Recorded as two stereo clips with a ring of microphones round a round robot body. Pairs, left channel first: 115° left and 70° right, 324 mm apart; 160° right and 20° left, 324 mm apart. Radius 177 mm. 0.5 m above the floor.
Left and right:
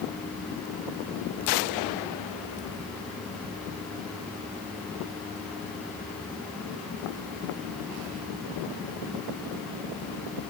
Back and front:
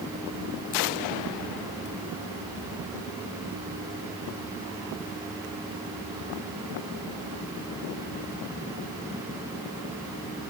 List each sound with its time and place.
Only background noise.